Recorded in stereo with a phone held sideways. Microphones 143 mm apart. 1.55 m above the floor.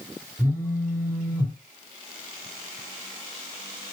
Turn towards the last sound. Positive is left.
turn(degrees=10)  # may be behind; listen again after turning